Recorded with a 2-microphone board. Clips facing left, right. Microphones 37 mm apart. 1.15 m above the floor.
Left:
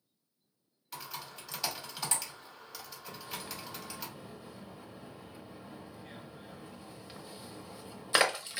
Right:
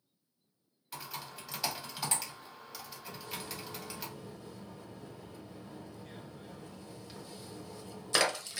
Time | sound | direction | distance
0.9 | typing on a keyboard | centre (ahead or behind) | 1.1 m
3.1 | a splash | 20° left (ahead or behind) | 0.6 m